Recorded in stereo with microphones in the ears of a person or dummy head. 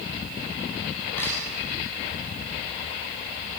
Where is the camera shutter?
5° left (ahead or behind), 9.5 m.